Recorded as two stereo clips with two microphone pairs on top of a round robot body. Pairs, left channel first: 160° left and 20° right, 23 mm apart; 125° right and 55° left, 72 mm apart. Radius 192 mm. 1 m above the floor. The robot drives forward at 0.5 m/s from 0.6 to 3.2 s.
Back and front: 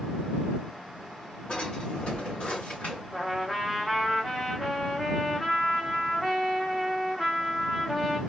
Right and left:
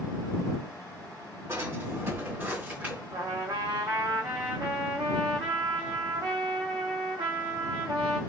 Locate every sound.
1.5 s a drawer: 105° left, 1.8 m; by 3.0 s 125° left, 2 m
3.1 s a trumpet: 75° left, 0.9 m; by 8.2 s 80° left, 0.9 m